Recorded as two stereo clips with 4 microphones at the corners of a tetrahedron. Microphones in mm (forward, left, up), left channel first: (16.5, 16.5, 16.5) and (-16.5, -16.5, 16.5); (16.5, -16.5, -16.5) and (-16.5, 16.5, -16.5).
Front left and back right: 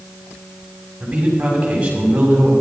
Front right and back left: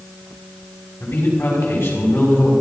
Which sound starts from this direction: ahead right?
A man speaking, at 1.0 s.